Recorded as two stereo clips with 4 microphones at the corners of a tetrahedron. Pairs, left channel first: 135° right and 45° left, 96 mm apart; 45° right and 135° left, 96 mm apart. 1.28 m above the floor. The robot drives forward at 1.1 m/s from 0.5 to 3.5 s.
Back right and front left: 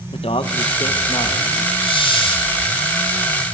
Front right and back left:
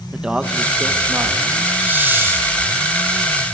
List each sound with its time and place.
0.1 s a man speaking: 145° right, 1.4 m; by 1.7 s 160° right, 2.5 m
1.8 s a hiss: 155° right, 2.5 m; by 2.5 s 160° right, 3.5 m